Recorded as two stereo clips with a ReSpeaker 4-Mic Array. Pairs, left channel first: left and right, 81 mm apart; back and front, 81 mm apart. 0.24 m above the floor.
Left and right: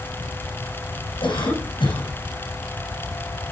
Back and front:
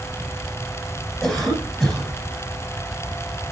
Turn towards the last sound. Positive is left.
turn(degrees=90)